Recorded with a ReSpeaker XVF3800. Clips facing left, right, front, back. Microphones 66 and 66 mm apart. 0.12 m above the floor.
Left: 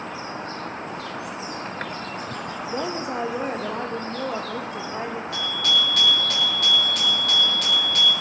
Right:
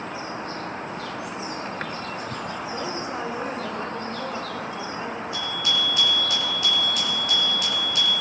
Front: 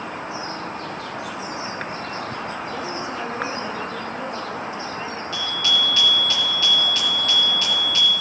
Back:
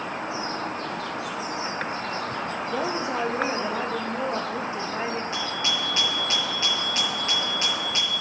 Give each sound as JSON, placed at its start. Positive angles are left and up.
{"t": 2.7, "sound": "a woman speaking", "azimuth_deg": 115, "distance_m": 2.5}
{"t": 5.3, "sound": "a bicycle bell", "azimuth_deg": 115, "distance_m": 9.5}